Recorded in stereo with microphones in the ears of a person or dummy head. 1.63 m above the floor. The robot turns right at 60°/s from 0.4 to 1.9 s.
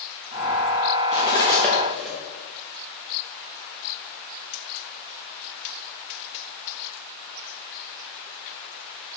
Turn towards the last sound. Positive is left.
turn(degrees=0)  # may be behind; listen again after turning